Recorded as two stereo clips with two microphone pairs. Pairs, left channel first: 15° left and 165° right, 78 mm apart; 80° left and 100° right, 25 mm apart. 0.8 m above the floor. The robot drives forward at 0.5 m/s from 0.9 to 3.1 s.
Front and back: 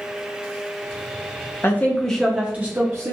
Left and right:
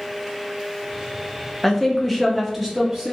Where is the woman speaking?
5° left, 0.6 m; by 3.1 s straight behind, 0.7 m.